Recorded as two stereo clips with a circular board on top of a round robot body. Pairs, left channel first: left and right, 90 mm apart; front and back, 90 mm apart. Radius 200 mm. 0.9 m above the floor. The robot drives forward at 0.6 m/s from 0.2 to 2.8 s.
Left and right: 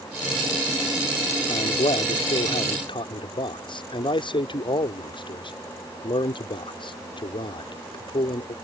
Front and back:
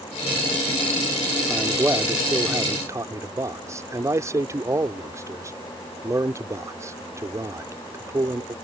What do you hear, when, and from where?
1.5 s a man speaking: 110° left; by 8.5 s 120° left